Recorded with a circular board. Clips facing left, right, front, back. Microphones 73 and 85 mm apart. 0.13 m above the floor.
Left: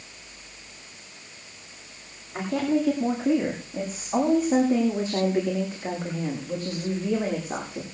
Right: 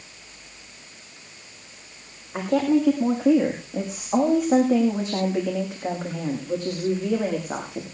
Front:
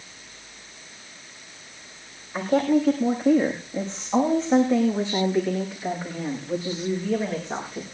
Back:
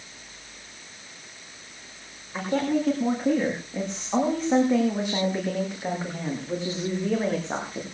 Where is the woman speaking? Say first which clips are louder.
Right 4 dB, front 4 dB; 85° right, 6 m; by 7.8 s 120° right, 7.5 m.